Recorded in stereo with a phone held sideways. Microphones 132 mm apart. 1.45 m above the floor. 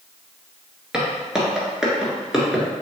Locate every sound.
0.9 s footsteps: 5° right (ahead or behind), 1.6 m